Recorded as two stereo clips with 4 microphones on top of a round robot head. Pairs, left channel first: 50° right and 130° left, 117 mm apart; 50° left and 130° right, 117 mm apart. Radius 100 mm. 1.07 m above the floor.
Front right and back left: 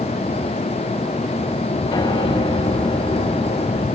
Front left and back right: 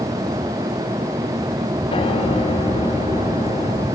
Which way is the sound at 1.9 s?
10° left.